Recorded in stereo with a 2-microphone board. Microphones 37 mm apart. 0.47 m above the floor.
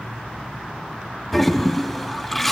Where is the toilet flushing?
5° left (ahead or behind), 2 m.